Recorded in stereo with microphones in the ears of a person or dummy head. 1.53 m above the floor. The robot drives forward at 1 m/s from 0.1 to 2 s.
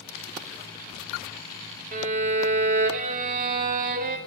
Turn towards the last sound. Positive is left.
turn(degrees=-40)  # may be behind; listen again after turning